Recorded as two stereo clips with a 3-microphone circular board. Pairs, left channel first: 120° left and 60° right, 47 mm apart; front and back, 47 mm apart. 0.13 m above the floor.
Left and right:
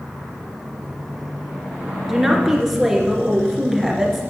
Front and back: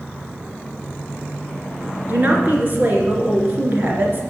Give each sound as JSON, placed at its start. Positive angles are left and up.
{"t": 2.1, "sound": "a woman speaking", "azimuth_deg": -150, "distance_m": 2.5}